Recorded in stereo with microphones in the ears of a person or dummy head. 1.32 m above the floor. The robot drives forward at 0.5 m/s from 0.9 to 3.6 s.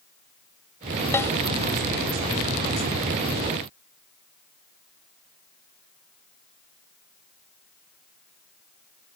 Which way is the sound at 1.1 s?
15° left (ahead or behind).